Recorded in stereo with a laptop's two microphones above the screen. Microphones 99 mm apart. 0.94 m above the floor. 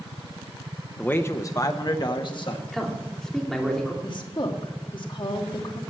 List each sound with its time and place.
1.0 s a man speaking: 15° left (ahead or behind), 0.7 m; by 2.6 s 50° left (ahead or behind), 1.7 m
2.7 s a man speaking: 5° left (ahead or behind), 3 m
4.0 s a woman speaking: 50° left (ahead or behind), 1.8 m